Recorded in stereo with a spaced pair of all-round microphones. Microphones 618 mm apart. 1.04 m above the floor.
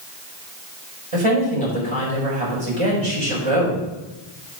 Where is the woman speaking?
55° right (ahead or behind), 4 m.